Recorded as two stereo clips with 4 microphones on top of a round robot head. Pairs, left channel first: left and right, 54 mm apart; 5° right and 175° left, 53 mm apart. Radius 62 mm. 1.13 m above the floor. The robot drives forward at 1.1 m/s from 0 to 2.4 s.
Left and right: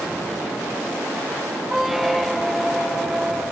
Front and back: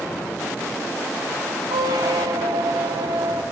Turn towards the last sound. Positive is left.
turn(degrees=180)